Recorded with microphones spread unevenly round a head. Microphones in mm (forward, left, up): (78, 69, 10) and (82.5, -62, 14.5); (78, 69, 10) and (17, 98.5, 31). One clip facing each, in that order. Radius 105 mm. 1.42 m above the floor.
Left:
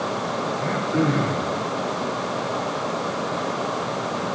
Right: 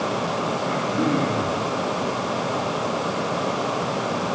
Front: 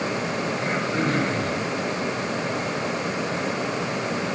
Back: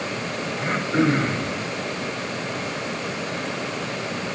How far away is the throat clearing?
About 7 m.